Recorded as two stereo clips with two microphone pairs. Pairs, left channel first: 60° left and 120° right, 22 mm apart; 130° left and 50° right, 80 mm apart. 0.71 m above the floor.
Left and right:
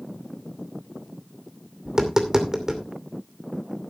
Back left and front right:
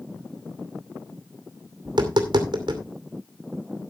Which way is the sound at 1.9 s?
60° right.